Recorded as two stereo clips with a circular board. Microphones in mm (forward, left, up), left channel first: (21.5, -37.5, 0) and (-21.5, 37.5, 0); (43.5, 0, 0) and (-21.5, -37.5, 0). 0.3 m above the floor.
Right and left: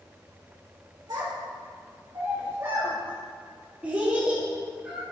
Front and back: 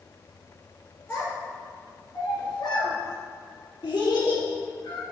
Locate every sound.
1.1 s a child speaking: 90° left, 2.5 m; by 5.0 s 35° left, 3.5 m